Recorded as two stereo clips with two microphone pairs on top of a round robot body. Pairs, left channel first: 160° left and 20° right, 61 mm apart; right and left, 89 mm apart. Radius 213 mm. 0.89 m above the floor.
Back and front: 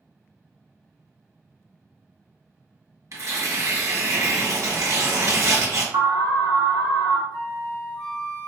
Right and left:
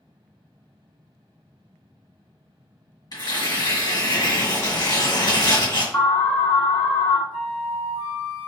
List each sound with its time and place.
3.1 s tearing paper: 55° right, 1.8 m
5.9 s an alarm: 25° right, 1.0 m
7.3 s a flute: 175° right, 1.3 m